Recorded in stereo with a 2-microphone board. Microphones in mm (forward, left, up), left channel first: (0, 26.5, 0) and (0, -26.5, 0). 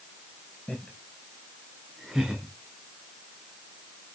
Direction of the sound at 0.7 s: 15° left (ahead or behind).